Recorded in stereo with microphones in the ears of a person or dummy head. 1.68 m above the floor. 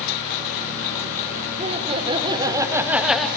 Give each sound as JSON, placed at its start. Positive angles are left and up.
{"t": 1.6, "sound": "laughter", "side_deg": -35, "distance_m": 2.0}